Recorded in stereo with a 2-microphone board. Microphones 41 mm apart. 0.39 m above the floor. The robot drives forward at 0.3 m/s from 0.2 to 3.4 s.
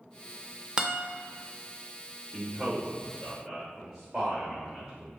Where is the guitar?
20° right (ahead or behind), 0.5 m; by 1.0 s 15° right (ahead or behind), 0.6 m.